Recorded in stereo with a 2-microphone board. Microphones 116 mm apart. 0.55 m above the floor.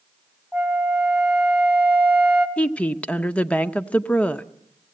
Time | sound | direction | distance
0.5 | a flute | 10° right (ahead or behind) | 1.5 m
2.6 | a woman speaking | 10° left (ahead or behind) | 0.6 m